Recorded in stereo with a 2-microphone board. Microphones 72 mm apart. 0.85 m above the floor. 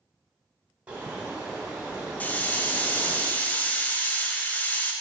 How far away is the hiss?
About 0.5 m.